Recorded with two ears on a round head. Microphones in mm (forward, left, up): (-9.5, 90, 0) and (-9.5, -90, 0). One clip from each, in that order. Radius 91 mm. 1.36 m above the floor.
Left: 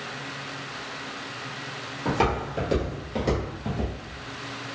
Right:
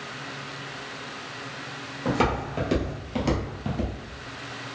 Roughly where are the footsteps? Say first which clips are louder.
Even; centre.